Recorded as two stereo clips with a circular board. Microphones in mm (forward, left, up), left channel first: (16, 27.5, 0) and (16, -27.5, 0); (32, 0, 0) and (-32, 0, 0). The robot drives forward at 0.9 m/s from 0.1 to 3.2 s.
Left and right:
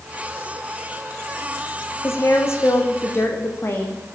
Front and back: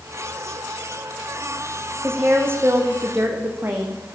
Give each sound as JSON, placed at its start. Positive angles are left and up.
{"t": 2.0, "sound": "a woman speaking", "azimuth_deg": 125, "distance_m": 6.0}